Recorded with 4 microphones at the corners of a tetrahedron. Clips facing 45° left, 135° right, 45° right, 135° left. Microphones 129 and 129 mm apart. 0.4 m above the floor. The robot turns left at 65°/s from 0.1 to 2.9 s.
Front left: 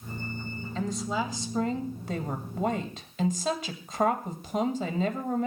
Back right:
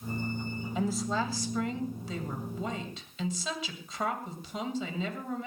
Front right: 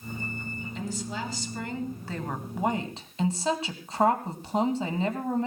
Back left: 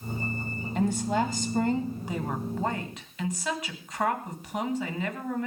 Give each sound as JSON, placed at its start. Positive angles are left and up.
{"t": 0.8, "sound": "a woman speaking", "azimuth_deg": 150, "distance_m": 2.5}